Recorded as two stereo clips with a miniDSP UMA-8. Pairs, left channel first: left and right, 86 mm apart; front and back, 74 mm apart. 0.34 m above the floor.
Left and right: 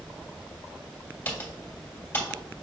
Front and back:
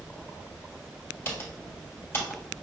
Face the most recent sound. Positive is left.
turn(degrees=35)